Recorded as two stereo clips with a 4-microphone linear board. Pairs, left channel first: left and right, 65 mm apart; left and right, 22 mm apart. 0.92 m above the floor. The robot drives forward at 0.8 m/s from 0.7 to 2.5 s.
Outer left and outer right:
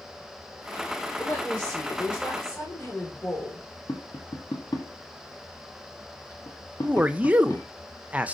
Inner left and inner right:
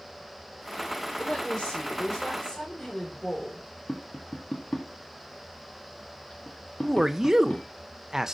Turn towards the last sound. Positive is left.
turn(degrees=-25)  # may be behind; listen again after turning